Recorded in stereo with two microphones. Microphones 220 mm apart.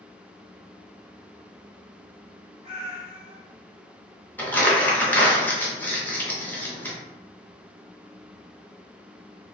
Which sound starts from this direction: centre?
Crumpling, at 4.4 s.